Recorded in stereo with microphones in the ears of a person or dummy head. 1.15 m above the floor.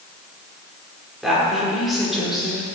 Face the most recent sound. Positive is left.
turn(degrees=0)  # may be behind; listen again after turning